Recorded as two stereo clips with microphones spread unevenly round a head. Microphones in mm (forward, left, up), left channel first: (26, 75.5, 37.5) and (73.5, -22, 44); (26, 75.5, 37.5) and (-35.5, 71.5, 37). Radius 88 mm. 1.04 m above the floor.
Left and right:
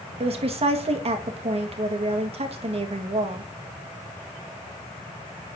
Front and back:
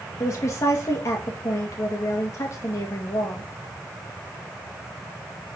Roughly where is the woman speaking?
Ahead right.